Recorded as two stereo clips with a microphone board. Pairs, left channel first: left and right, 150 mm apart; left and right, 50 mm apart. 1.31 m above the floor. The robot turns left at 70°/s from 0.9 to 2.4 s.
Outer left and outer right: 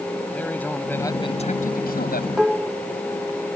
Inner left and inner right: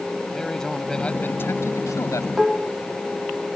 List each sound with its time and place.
0.3 s a man speaking: 170° left; by 2.3 s 75° left
2.4 s dishes clattering: centre (ahead or behind); by 2.8 s 5° right (ahead or behind)